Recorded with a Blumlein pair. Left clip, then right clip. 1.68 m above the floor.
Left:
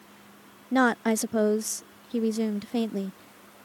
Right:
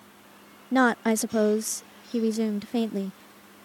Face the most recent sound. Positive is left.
turn(degrees=0)